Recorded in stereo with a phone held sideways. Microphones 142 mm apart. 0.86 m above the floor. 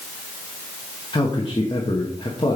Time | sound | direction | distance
1.1 | a man speaking | 40° left (ahead or behind) | 1.1 m